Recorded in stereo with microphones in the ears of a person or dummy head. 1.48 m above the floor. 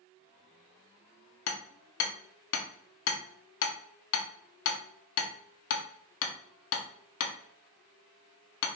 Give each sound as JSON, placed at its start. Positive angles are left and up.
{"t": 1.5, "sound": "hammering", "side_deg": 65, "distance_m": 0.7}